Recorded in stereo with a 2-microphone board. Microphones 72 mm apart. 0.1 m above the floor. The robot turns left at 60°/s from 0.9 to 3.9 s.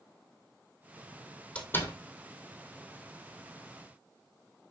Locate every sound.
1.6 s a door slam: 15° left (ahead or behind), 2.5 m; by 1.9 s 40° left (ahead or behind), 2.5 m